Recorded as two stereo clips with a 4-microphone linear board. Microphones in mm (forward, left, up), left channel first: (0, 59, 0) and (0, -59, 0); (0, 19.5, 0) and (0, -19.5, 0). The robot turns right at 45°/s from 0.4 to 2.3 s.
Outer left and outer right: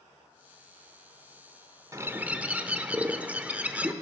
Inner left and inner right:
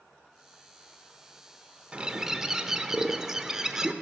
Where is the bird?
25° right (ahead or behind), 0.7 m; by 3.9 s 15° right (ahead or behind), 0.7 m.